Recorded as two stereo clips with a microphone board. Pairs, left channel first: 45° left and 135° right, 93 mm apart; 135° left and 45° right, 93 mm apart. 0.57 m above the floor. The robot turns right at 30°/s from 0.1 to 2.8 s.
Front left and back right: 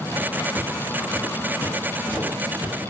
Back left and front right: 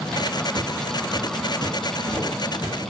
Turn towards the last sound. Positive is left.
turn(degrees=-75)